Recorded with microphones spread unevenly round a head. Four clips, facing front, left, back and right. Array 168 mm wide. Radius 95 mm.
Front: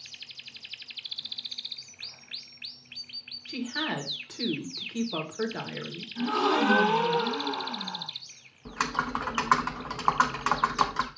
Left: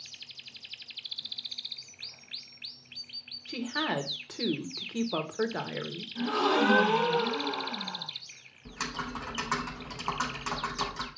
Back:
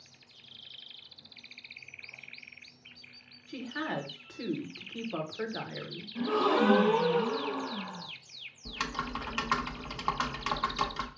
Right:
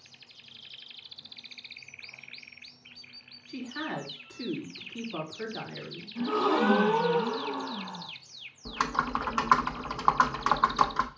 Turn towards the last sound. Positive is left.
turn(degrees=-40)